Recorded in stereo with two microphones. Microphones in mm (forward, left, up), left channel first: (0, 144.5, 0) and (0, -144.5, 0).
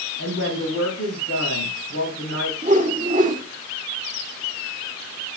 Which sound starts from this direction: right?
A whoosh, at 2.6 s.